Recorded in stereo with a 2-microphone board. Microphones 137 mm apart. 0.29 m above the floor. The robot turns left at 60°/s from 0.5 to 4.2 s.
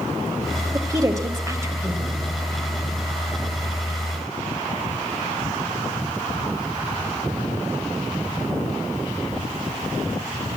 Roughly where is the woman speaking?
Right.